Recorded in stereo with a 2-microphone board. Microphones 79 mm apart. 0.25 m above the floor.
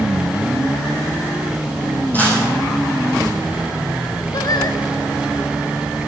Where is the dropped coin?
20° left (ahead or behind), 5.5 m.